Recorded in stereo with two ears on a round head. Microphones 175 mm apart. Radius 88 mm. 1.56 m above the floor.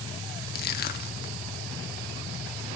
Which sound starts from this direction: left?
Crushing, at 0.6 s.